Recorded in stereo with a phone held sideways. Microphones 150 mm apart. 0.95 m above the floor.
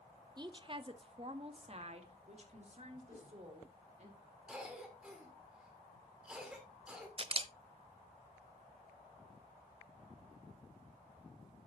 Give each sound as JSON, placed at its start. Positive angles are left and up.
{"t": 0.4, "sound": "a woman speaking", "side_deg": -30, "distance_m": 0.6}
{"t": 3.1, "sound": "a whoosh", "side_deg": 75, "distance_m": 5.0}
{"t": 4.5, "sound": "a cough", "side_deg": -5, "distance_m": 3.0}
{"t": 7.2, "sound": "a camera shutter", "side_deg": -40, "distance_m": 0.5}